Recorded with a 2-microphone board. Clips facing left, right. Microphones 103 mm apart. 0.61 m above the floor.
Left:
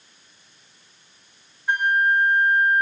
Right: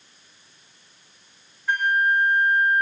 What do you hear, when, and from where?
1.7 s a flute: 15° left (ahead or behind)